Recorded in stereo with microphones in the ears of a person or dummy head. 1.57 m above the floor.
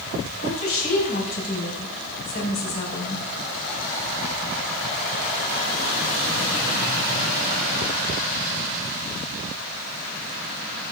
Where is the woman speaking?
55° left (ahead or behind), 5 m.